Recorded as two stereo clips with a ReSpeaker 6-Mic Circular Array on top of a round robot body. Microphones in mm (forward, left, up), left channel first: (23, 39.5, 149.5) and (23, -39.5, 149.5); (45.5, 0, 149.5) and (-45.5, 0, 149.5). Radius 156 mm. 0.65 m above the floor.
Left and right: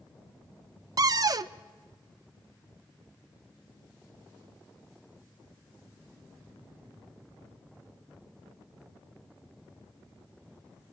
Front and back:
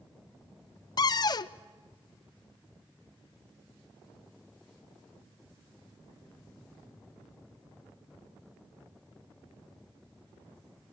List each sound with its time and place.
1.0 s a cupboard door: 45° right, 0.5 m